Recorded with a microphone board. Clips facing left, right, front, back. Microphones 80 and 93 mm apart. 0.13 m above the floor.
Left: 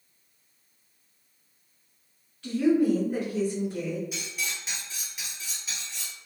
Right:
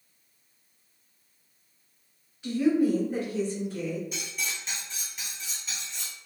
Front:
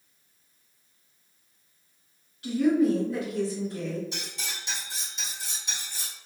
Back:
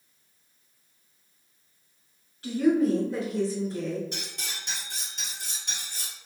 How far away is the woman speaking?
About 2.0 m.